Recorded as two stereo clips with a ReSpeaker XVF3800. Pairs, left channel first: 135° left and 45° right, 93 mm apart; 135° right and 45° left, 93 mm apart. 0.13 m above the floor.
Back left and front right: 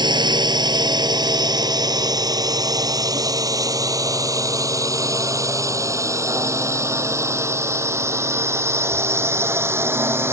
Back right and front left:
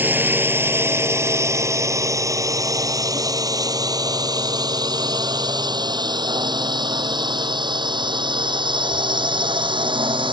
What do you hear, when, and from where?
0.0 s a drone: 20° right; by 10.3 s 20° left